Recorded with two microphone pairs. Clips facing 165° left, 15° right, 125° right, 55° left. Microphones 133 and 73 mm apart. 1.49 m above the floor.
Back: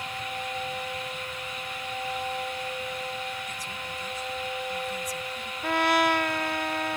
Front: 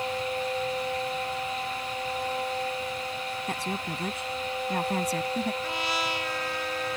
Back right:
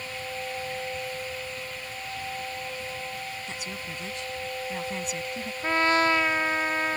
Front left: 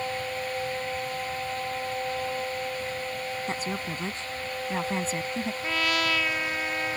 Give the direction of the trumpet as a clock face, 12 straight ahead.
6 o'clock.